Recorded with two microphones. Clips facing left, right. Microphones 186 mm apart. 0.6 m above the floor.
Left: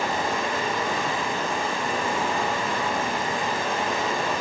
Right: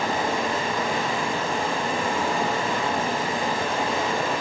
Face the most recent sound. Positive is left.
turn(degrees=-30)  # may be behind; listen again after turning